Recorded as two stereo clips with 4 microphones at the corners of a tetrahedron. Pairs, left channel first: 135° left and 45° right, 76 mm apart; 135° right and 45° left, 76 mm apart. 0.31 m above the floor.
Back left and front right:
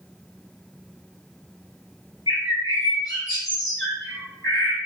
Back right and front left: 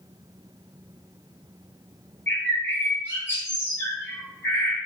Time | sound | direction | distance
2.3 | a bird | 165° left | 4 m